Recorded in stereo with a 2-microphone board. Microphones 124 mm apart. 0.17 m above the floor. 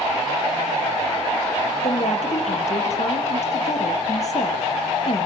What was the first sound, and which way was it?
A woman speaking, 65° left (ahead or behind).